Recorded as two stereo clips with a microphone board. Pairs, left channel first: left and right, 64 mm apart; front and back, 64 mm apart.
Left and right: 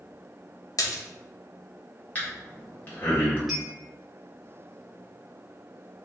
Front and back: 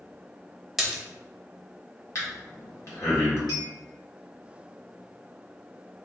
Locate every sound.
0.8 s a splash: 95° left, 0.7 m
2.1 s breathing: 30° left, 1.6 m
3.5 s a clink: straight ahead, 1.7 m